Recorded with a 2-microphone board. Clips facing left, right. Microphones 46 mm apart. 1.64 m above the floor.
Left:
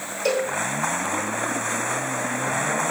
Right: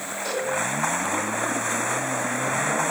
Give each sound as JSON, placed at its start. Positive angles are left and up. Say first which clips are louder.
{"t": 0.2, "sound": "a cowbell", "louder": "left 5 dB", "side_deg": 80, "distance_m": 8.5}